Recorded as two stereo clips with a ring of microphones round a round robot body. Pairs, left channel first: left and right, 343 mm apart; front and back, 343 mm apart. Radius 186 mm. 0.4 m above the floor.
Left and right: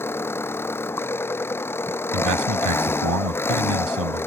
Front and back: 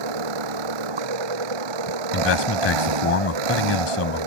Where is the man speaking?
50° right.